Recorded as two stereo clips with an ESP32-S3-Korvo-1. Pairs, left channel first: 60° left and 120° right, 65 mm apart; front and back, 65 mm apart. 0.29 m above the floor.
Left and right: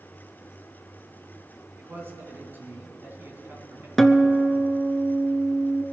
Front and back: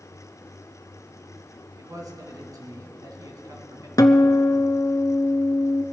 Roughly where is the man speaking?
Behind.